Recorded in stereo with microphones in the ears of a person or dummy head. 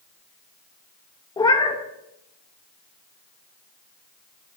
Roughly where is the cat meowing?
Left.